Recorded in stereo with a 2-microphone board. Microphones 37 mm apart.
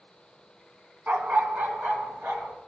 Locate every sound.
1.1 s a dog barking: 55° right (ahead or behind), 1.1 m; by 2.6 s 80° right, 1.9 m